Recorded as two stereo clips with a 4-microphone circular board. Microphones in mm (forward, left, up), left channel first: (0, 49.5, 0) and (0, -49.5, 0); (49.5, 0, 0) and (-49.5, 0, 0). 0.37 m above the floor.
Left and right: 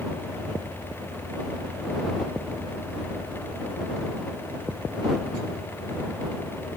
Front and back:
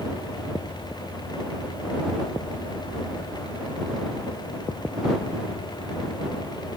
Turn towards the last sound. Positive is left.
No sound to turn to.